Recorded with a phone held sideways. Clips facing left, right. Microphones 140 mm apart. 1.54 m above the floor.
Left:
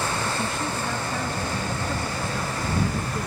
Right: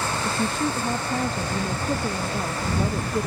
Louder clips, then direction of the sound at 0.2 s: Right 3 dB; 35° right (ahead or behind).